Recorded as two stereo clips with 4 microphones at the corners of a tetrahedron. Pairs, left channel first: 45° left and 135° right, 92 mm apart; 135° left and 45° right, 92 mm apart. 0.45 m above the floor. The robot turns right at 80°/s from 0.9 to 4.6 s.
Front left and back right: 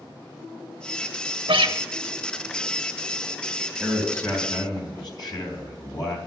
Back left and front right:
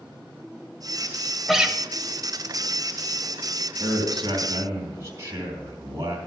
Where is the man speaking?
55° right, 3 m; by 6.2 s 10° left, 3 m.